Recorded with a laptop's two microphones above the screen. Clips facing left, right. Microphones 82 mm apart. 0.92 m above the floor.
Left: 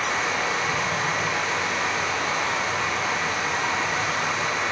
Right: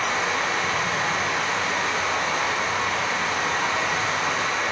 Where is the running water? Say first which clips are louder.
Right 1 dB; 70° right (ahead or behind), 1.6 m.